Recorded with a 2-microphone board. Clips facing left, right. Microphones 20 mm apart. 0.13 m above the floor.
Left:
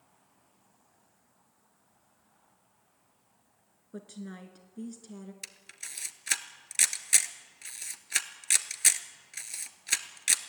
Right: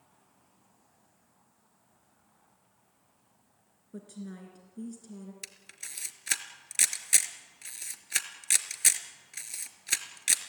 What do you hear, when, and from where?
3.9 s a woman speaking: 30° left (ahead or behind), 1.7 m
5.4 s a camera shutter: 5° left (ahead or behind), 1.1 m